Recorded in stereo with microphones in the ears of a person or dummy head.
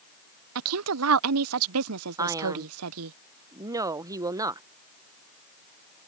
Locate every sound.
0.6 s a woman speaking: 80° right
2.2 s a man speaking: 15° right (ahead or behind)